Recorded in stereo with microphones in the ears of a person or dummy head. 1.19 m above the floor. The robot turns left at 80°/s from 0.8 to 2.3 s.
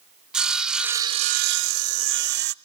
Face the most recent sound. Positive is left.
turn(degrees=-125)